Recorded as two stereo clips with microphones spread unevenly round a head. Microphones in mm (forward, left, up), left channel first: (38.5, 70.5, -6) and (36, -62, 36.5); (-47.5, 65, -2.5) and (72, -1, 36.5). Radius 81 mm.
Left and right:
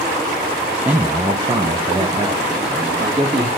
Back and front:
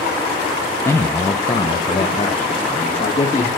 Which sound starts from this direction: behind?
A man speaking, at 0.8 s.